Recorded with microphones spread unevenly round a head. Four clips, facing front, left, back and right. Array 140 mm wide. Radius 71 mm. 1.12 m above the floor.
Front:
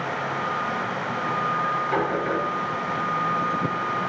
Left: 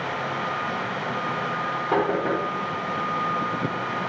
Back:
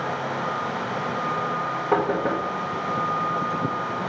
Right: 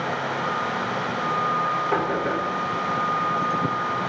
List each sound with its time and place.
1.9 s knocking: 160° left, 1.5 m